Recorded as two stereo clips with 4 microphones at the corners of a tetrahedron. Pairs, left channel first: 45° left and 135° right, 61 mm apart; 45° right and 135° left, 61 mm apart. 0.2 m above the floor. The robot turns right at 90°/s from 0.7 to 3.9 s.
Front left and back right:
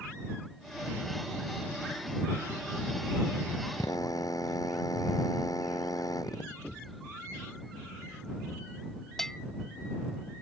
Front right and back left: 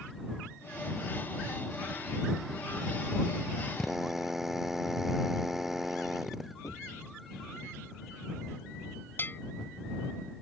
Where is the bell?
35° right.